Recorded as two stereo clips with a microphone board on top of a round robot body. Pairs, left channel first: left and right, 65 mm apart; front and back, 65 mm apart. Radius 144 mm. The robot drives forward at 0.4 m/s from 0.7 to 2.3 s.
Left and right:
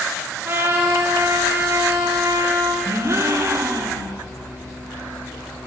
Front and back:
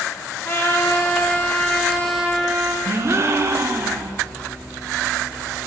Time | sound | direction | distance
0.5 | a trumpet | 45° right | 1.1 m
2.9 | a gasp | 130° right | 0.6 m